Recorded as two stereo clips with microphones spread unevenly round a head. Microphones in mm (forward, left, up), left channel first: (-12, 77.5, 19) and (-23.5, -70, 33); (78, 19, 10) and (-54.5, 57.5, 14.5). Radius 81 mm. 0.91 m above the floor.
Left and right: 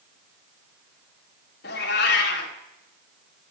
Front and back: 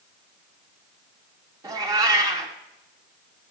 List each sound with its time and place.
1.6 s a cat meowing: 105° left, 1.4 m